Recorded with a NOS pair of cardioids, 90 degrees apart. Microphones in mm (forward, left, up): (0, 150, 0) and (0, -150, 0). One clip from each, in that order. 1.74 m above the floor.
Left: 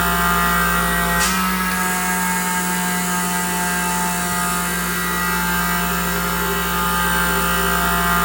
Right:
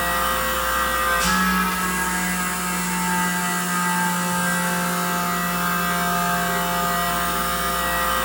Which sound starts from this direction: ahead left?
A machine running, at 0.0 s.